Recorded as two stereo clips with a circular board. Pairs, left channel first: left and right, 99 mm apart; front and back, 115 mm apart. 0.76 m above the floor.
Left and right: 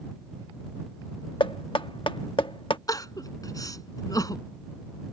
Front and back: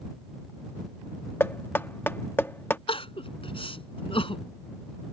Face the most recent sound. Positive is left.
turn(degrees=40)